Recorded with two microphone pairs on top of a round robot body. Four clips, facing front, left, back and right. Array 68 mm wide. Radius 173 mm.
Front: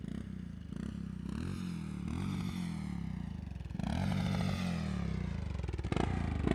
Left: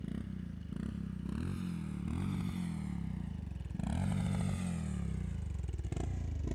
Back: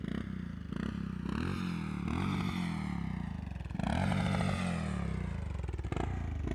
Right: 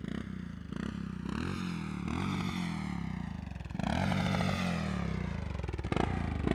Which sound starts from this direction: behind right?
A motorcycle, at 0.0 s.